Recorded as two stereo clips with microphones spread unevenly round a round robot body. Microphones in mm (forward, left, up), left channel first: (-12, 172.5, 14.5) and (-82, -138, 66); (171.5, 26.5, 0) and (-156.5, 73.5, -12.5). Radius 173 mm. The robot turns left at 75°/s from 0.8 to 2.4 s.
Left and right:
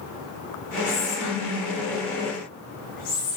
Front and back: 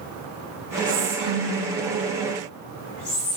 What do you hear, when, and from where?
0.9 s whispering: 130° left, 5.5 m; by 3.4 s 15° left, 5.5 m